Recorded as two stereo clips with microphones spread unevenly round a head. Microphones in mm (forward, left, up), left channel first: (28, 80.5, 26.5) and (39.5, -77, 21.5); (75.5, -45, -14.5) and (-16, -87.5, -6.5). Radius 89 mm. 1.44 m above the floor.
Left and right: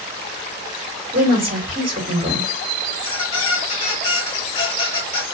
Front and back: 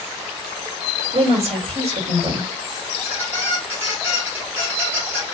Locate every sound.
1.1 s a woman speaking: 145° right, 2.5 m
2.9 s a squeak: 140° left, 0.8 m